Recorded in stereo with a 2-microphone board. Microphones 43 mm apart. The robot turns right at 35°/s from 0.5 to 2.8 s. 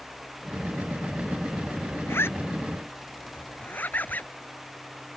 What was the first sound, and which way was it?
A zipper, 70° left (ahead or behind).